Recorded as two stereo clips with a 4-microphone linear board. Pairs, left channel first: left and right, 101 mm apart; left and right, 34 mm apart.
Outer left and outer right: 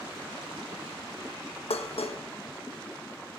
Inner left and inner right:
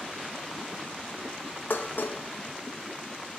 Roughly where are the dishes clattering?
Left.